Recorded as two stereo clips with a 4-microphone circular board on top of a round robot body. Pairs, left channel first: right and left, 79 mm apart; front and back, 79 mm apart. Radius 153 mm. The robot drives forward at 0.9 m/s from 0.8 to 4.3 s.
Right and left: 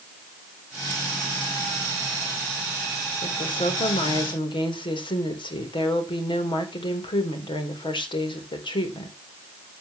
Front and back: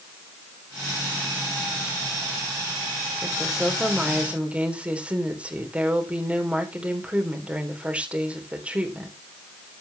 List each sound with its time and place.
3.2 s a woman speaking: 90° right, 4 m; by 9.2 s 105° right, 4 m